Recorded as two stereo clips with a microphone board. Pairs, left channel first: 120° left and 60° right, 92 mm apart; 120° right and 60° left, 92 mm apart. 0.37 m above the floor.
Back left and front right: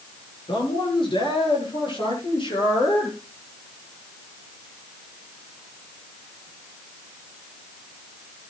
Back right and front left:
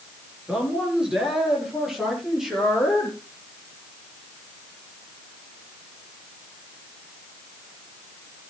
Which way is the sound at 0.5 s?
140° left.